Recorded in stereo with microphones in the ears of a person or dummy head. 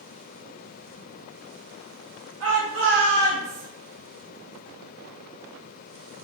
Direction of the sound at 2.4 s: 85° right.